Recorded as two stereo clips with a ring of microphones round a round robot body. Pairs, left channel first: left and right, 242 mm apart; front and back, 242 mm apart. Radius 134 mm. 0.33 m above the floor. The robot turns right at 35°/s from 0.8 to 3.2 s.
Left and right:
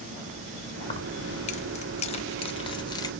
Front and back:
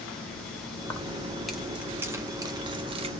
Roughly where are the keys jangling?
Ahead left.